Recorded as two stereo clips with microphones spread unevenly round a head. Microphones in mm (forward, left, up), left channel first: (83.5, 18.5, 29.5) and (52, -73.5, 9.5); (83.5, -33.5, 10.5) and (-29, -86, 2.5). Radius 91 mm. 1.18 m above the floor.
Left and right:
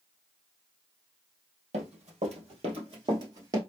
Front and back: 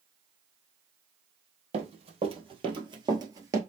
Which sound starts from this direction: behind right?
Running footsteps, at 1.7 s.